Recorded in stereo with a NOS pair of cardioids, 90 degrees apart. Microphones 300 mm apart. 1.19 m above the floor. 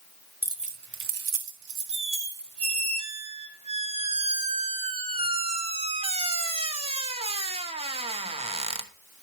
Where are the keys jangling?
5° right, 0.7 m; by 2.9 s 75° right, 2.5 m.